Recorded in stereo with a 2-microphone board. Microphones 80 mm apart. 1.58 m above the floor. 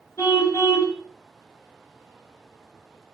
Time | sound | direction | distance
0.2 | a car horn | 35° left (ahead or behind) | 5.5 m